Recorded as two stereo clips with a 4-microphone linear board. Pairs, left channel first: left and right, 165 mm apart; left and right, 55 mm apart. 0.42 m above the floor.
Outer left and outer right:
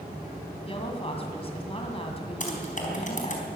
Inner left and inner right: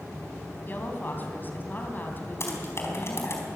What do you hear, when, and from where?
0.7 s a woman speaking: 35° left (ahead or behind), 3 m
2.4 s typing on a keyboard: 50° left (ahead or behind), 4 m